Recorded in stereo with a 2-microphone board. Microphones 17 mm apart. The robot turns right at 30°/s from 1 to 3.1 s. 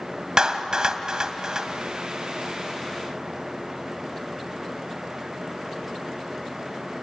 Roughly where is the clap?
Right.